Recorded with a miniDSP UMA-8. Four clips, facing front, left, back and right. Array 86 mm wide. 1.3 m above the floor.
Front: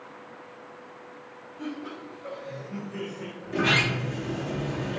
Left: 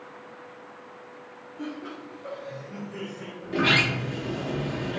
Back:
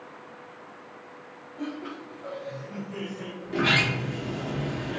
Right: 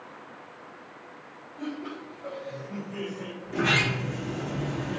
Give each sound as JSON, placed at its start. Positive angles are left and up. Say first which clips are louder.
{"t": 1.6, "sound": "laughter", "louder": "right 1 dB, back 1 dB", "azimuth_deg": -165, "distance_m": 1.9}
{"t": 3.4, "sound": "a sliding door", "louder": "left 2 dB, even", "azimuth_deg": 125, "distance_m": 0.8}